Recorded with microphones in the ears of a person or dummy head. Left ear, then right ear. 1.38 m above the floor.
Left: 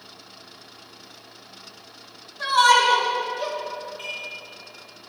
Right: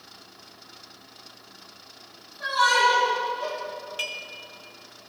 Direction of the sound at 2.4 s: 55° left (ahead or behind).